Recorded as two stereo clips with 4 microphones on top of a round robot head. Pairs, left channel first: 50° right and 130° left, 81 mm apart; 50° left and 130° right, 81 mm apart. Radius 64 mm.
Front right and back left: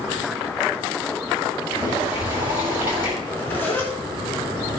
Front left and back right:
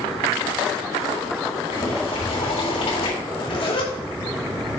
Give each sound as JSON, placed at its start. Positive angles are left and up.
{"t": 1.7, "sound": "boiling", "azimuth_deg": 60, "distance_m": 5.5}
{"t": 3.2, "sound": "a zipper", "azimuth_deg": 25, "distance_m": 4.0}